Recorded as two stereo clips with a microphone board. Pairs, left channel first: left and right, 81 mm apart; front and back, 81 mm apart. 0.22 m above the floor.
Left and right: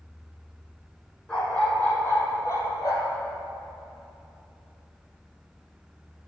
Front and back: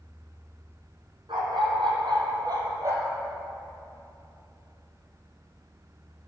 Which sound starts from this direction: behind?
A dog barking, at 1.3 s.